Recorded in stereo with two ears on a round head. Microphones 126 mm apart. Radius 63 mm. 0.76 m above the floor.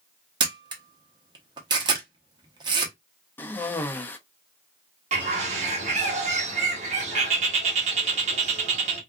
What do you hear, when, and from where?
0.4 s a camera shutter: 30° right (ahead or behind), 0.9 m
3.4 s a cough: 15° left (ahead or behind), 0.5 m
5.1 s a bird: 50° right (ahead or behind), 1.2 m